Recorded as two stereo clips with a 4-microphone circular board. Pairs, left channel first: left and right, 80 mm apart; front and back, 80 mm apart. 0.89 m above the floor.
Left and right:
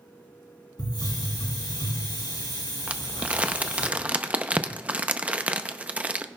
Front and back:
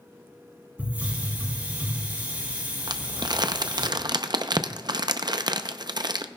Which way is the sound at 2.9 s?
160° right.